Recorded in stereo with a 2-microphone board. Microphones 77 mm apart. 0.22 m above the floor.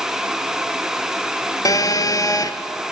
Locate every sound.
1.6 s a phone buzzing: 50° left (ahead or behind), 1.3 m